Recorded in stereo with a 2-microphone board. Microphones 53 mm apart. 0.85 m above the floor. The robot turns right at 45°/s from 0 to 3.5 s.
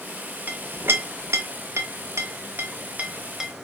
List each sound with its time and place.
0.5 s a clink: 35° right (ahead or behind), 0.6 m; by 3.5 s 5° right (ahead or behind), 0.6 m